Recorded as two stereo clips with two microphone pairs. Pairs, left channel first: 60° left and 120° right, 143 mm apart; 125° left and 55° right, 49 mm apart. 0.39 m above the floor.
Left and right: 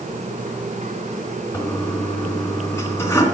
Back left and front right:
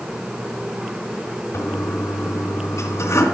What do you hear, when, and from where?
1.5 s a toilet flushing: 135° left, 2.5 m